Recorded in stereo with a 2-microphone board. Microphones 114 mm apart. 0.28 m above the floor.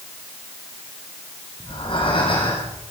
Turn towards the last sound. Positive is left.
turn(degrees=50)  # may be behind; listen again after turning